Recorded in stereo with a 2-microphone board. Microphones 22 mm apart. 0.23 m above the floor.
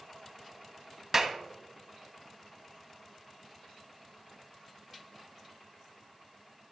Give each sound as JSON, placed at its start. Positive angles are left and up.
{"t": 1.1, "sound": "a clap", "side_deg": -20, "distance_m": 1.0}